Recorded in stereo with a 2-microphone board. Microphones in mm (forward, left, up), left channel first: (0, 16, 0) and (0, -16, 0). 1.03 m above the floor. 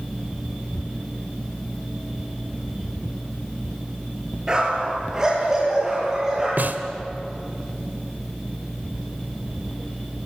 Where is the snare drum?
75° right (ahead or behind), 1.7 m.